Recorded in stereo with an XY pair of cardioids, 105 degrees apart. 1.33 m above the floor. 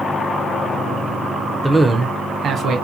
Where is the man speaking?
15° left, 0.5 m; by 2.8 s 60° right, 1.1 m.